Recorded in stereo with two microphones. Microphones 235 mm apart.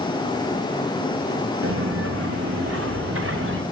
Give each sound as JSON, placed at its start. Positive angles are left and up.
{"t": 1.6, "sound": "footsteps", "side_deg": -70, "distance_m": 1.7}